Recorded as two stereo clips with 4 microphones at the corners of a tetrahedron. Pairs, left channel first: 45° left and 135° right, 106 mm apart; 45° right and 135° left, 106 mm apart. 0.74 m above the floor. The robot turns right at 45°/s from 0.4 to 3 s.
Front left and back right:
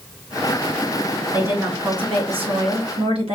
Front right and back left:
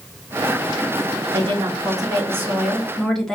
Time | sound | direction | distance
1.3 | a woman speaking | 155° left | 1.1 m